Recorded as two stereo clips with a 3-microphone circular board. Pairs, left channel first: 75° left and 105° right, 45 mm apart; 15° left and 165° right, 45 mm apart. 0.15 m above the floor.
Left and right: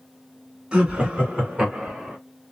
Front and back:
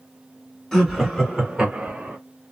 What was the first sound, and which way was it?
Laughter, 55° right.